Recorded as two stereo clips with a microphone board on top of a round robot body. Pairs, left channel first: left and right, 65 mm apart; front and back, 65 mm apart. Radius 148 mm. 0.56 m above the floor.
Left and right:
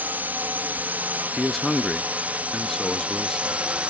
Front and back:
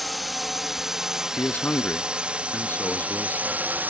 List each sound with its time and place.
0.0 s a drone: 90° right; by 3.9 s 145° right
1.4 s a man speaking: 5° left